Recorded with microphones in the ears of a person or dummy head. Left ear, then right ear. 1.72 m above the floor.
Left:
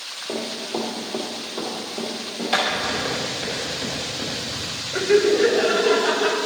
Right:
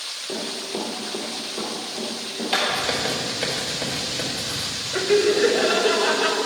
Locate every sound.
0.3 s running footsteps: 30° left (ahead or behind), 1.9 m; by 2.6 s 5° right (ahead or behind), 2.5 m
2.7 s writing: 55° right (ahead or behind), 2.0 m
4.9 s laughter: 10° right (ahead or behind), 0.9 m